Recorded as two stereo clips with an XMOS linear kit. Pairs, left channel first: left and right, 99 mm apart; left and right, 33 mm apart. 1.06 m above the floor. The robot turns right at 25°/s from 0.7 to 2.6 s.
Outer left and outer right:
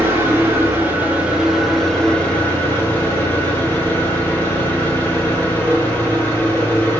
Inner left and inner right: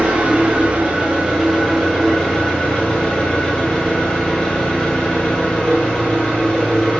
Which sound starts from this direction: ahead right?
An engine running, at 0.0 s.